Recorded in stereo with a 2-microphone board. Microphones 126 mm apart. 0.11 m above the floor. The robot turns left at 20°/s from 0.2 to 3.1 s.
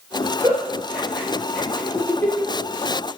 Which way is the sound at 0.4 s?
20° right (ahead or behind).